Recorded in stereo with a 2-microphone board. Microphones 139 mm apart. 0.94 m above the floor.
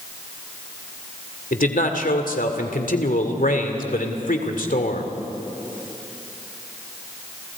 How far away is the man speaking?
About 2.5 m.